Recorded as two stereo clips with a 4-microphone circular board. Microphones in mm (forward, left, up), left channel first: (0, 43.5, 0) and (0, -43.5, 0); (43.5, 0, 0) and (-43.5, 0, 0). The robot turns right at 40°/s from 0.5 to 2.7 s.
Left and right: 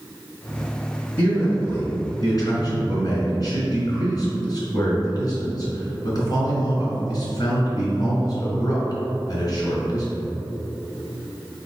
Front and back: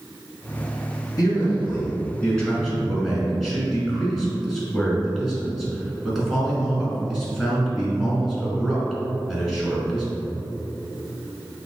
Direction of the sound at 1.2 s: 30° left.